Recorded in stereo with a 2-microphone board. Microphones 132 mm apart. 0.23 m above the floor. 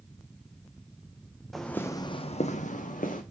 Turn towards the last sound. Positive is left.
turn(degrees=75)  # may be behind; listen again after turning